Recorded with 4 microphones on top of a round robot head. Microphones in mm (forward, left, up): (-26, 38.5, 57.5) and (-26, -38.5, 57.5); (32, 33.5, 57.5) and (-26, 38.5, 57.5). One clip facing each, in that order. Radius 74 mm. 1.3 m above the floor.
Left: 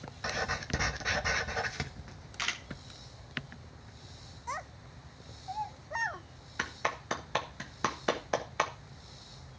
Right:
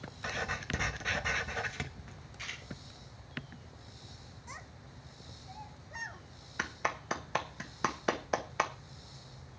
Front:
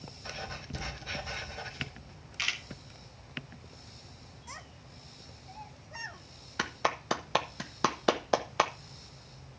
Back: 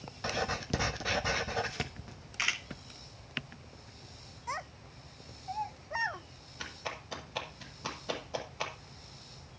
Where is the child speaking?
130° left, 0.6 m.